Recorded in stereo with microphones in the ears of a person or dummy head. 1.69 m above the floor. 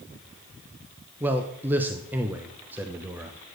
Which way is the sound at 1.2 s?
10° right (ahead or behind).